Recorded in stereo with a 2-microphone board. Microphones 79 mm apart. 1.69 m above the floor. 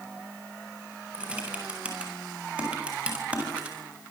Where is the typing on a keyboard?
15° right (ahead or behind), 8 m.